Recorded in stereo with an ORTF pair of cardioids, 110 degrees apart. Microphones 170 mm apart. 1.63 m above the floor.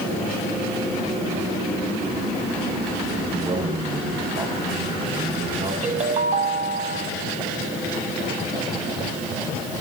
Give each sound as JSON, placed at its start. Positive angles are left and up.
{"t": 3.2, "sound": "a man speaking", "azimuth_deg": -35, "distance_m": 7.5}
{"t": 5.8, "sound": "a ringtone", "azimuth_deg": -40, "distance_m": 6.5}